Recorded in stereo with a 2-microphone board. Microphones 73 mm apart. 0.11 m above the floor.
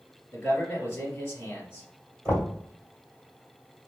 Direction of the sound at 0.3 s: 20° left (ahead or behind).